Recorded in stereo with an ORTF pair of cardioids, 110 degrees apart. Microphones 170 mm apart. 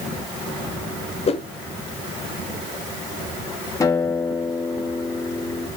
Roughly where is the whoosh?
Ahead left.